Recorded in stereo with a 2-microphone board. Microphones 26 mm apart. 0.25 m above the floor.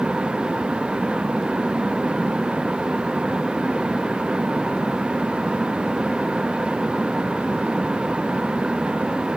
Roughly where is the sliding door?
No sliding door in this recording.